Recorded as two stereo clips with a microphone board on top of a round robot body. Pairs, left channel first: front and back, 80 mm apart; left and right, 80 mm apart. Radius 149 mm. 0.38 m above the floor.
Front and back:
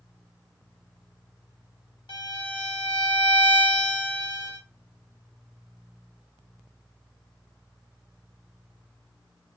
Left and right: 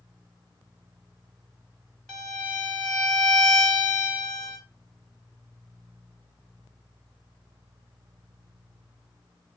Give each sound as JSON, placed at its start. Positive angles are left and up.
{"t": 2.1, "sound": "a violin", "azimuth_deg": 5, "distance_m": 3.0}